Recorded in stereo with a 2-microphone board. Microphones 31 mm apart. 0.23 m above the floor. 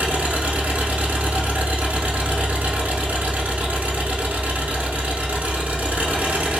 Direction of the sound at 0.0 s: 65° right (ahead or behind).